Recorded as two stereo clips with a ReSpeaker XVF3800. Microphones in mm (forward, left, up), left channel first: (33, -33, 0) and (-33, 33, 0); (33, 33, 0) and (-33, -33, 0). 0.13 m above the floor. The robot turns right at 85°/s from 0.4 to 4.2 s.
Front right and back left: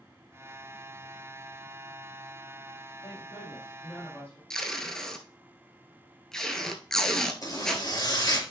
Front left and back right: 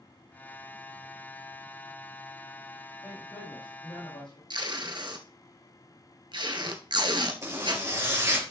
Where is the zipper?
85° right, 3 m.